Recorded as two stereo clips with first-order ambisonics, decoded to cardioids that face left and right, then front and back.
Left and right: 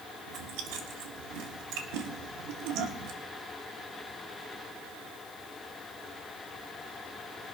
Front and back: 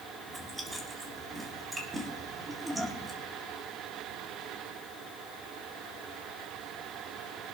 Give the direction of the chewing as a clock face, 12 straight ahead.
3 o'clock.